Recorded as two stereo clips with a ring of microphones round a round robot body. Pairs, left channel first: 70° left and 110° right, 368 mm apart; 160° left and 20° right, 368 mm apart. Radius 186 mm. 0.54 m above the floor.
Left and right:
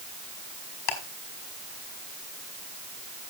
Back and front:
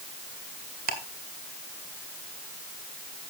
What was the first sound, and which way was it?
Ticking, 45° left.